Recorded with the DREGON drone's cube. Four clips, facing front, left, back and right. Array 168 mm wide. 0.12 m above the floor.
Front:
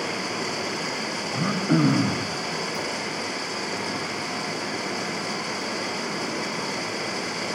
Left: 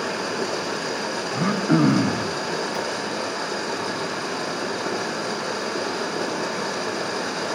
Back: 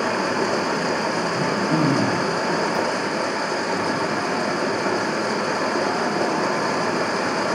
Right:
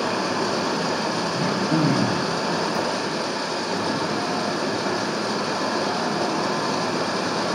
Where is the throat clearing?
65° left, 3 m.